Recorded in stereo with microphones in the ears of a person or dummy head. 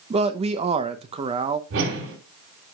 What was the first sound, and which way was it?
A man speaking, 25° right (ahead or behind).